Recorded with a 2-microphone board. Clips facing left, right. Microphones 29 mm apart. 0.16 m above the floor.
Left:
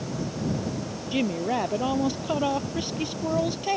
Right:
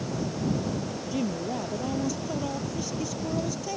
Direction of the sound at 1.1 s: 50° left (ahead or behind).